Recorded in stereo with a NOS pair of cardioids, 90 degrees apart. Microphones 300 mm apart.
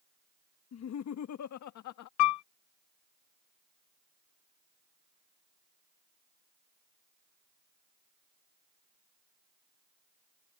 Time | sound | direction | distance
0.7 | laughter | 60° left | ?
2.2 | a piano | 65° left | ?